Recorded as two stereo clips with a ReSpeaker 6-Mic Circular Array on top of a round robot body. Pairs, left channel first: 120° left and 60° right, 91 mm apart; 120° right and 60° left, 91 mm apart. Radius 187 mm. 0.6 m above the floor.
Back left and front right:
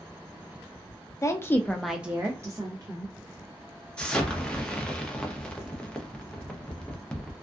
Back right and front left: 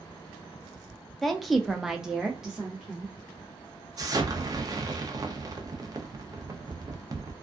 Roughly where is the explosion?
Ahead left.